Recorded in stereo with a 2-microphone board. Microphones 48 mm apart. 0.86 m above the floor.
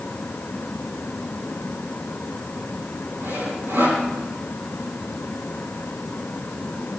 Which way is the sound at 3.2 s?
60° right (ahead or behind).